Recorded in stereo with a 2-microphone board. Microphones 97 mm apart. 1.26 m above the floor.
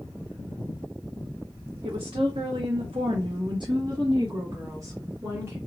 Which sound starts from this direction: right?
A woman speaking, at 1.8 s.